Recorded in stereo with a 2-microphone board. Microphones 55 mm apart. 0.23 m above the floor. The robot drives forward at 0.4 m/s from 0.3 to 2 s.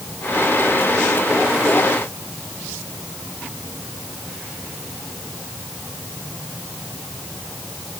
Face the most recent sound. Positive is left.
No sound to turn to.